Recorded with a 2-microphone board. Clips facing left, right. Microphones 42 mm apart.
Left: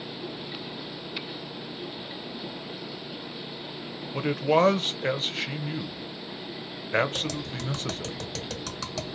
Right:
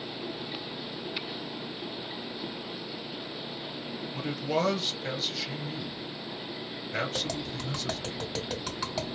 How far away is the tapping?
About 1.7 m.